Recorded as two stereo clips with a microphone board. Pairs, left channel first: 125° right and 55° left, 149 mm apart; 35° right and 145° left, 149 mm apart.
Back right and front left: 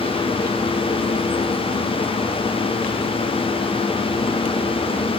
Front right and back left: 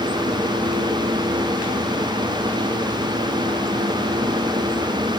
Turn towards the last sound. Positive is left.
No sound to turn to.